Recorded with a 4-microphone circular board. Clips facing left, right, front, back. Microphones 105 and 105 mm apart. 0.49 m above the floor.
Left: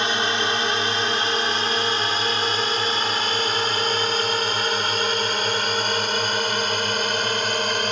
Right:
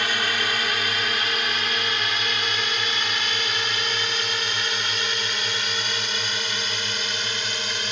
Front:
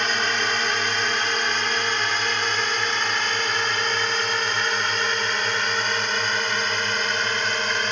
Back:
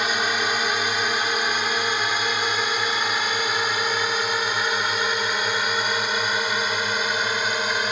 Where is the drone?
105° left; by 7.9 s 100° left.